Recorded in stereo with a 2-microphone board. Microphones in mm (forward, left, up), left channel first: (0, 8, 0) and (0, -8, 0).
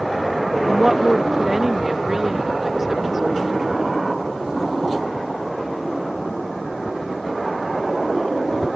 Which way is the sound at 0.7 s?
25° right (ahead or behind).